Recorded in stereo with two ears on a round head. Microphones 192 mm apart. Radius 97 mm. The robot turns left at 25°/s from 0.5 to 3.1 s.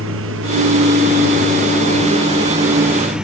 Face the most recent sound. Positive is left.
turn(degrees=-175)